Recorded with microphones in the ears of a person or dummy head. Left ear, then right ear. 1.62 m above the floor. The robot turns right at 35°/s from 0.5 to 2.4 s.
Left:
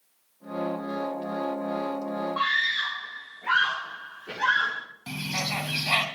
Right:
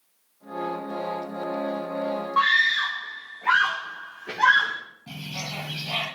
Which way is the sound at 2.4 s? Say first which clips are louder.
Right 5 dB; 30° right (ahead or behind).